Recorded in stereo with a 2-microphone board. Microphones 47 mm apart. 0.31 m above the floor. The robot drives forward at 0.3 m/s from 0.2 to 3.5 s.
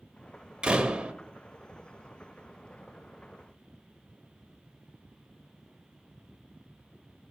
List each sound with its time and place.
0.6 s a door slam: 20° right (ahead or behind), 0.8 m